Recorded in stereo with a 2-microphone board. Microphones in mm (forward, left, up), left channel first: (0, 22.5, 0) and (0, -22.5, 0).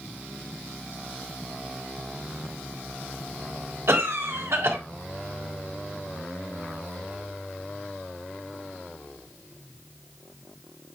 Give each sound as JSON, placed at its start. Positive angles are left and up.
{"t": 3.9, "sound": "a cough", "side_deg": -75, "distance_m": 3.5}